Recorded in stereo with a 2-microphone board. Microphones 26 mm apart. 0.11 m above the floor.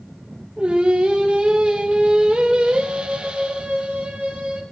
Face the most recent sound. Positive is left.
turn(degrees=-50)  # may be behind; listen again after turning